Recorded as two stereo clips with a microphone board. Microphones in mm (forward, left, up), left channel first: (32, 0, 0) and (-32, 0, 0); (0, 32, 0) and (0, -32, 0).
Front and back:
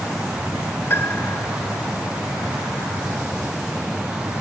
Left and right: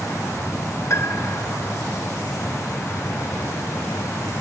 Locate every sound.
0.9 s a piano: 50° left